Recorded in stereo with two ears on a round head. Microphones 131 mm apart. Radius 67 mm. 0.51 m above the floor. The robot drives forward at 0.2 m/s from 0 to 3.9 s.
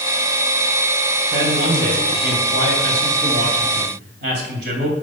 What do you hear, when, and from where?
1.3 s a man speaking: 70° right (ahead or behind), 2.5 m